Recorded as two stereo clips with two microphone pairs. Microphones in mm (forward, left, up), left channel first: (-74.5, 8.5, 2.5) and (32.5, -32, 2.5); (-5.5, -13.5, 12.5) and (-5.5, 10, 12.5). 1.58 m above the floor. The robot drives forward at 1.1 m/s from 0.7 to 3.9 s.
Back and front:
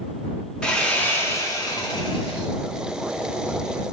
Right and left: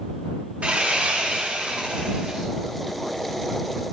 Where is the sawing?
75° left, 2 m; by 2.5 s 130° left, 2.5 m.